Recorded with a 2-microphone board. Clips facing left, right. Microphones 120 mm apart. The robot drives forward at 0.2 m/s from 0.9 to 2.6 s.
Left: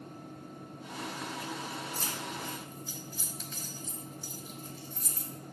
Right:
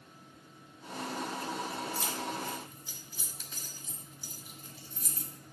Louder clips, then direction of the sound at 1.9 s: Right 3 dB; 5° right (ahead or behind).